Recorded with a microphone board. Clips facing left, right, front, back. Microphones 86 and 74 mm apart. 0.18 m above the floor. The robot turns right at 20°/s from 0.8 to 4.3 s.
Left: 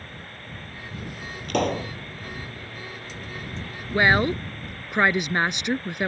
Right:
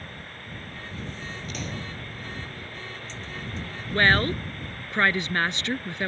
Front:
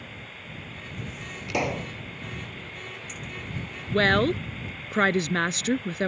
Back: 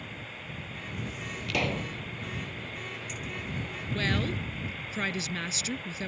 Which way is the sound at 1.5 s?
70° left.